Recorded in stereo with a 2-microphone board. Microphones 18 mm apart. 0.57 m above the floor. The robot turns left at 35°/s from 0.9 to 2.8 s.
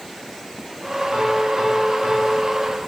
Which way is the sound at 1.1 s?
55° right.